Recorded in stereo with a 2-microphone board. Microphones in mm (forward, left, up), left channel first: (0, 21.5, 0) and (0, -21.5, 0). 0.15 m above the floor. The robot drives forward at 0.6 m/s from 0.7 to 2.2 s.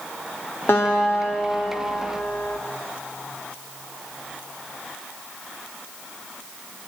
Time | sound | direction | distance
0.7 | a guitar | 60° left (ahead or behind) | 7 m